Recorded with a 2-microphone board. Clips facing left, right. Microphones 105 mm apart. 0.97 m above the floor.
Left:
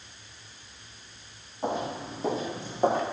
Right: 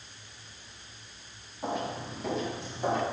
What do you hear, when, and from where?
1.6 s footsteps: 25° left (ahead or behind), 2 m; by 3.0 s 50° left (ahead or behind), 2.5 m